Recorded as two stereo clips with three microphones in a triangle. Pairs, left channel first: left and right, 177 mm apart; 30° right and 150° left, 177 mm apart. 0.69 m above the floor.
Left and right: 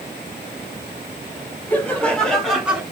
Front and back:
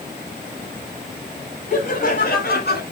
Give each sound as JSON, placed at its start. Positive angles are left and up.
{"t": 1.7, "sound": "laughter", "azimuth_deg": 10, "distance_m": 4.0}